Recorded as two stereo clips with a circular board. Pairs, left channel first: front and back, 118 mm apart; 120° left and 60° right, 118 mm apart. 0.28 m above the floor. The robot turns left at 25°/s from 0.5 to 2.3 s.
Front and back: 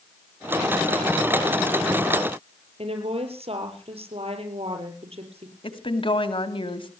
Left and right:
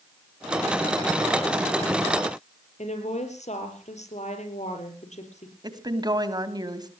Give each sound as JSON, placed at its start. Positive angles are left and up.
{"t": 2.8, "sound": "a woman speaking", "azimuth_deg": 145, "distance_m": 5.5}
{"t": 5.6, "sound": "a woman speaking", "azimuth_deg": -20, "distance_m": 2.0}